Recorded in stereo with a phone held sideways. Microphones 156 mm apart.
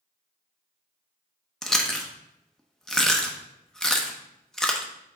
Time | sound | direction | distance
1.6 | chewing | 5° left (ahead or behind) | 0.7 m